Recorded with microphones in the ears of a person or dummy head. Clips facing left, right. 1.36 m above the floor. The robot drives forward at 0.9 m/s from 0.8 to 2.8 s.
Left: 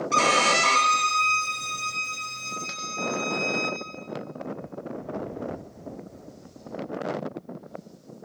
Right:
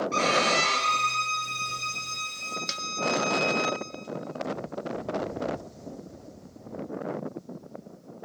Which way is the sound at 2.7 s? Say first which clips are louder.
Right 2 dB; 35° right (ahead or behind).